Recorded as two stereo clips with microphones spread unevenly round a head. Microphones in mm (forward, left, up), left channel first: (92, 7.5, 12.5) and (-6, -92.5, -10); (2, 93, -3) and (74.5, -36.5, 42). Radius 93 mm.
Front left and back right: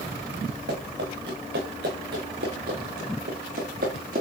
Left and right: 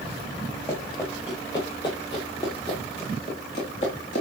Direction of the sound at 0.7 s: 160° right.